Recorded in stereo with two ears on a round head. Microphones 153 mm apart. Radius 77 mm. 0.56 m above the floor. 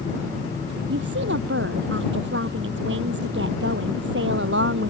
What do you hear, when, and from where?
0.9 s a woman speaking: 75° right (ahead or behind)